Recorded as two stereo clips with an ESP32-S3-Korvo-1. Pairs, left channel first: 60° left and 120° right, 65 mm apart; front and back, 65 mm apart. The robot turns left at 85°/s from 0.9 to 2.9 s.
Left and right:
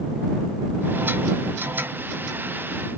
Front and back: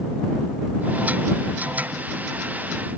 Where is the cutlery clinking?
No cutlery clinking in this recording.